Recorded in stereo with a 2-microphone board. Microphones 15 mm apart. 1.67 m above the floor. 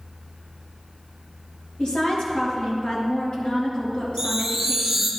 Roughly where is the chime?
Right.